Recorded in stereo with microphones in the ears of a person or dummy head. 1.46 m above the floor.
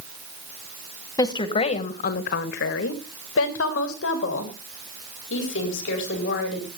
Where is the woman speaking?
20° left (ahead or behind), 1.5 m; by 6.7 s 70° left (ahead or behind), 5 m.